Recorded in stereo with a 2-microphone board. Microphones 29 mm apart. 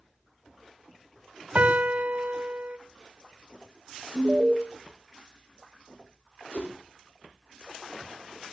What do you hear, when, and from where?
1.6 s a piano: 60° right (ahead or behind), 1.3 m
4.1 s an alarm: 30° right (ahead or behind), 2.0 m
6.5 s a whoosh: 65° left (ahead or behind), 5 m